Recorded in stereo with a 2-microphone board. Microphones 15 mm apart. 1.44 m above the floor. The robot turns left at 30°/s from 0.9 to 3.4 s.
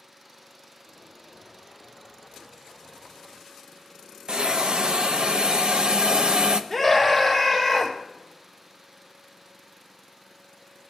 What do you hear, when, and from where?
4.3 s a hiss: 70° right (ahead or behind), 0.6 m
6.7 s a scream: 5° right (ahead or behind), 1.7 m